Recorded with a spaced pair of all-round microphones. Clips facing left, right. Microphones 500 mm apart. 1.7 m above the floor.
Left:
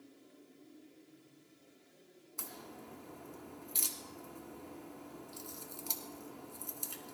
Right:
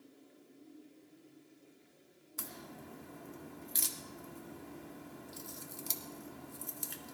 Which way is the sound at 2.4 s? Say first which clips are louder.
Right 1 dB; 35° right (ahead or behind).